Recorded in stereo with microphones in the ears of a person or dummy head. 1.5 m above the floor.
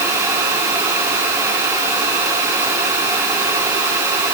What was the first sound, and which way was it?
Only background noise.